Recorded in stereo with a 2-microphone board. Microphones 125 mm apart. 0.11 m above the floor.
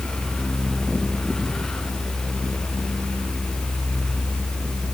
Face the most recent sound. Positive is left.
No sound to turn to.